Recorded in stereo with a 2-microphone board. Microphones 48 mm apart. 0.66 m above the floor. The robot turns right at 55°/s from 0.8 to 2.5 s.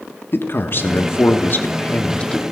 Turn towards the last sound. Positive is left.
turn(degrees=165)